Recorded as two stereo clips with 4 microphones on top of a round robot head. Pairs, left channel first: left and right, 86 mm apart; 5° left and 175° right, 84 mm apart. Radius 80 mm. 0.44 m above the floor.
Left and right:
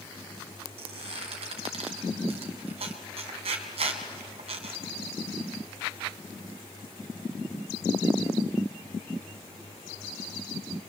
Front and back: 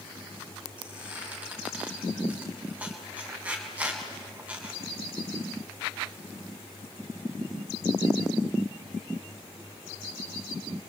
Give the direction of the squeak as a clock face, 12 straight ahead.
3 o'clock.